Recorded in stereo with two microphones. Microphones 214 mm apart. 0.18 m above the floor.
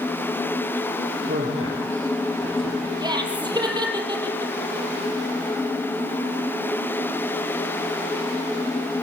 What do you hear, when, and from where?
1.3 s a man speaking: 70° right (ahead or behind), 5.5 m
3.0 s laughter: 20° right (ahead or behind), 5.5 m